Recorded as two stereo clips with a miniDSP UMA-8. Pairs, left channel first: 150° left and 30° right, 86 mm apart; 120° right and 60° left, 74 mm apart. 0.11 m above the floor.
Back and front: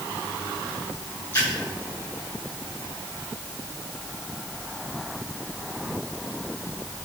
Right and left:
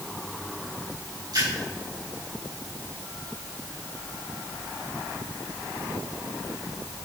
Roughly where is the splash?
Left.